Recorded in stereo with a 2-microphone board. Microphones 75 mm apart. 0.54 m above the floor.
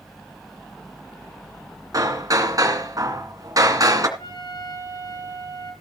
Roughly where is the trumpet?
Left.